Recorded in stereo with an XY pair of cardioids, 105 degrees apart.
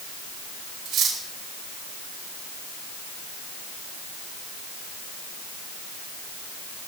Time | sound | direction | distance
0.8 | cutlery clinking | 65° right | 4.5 m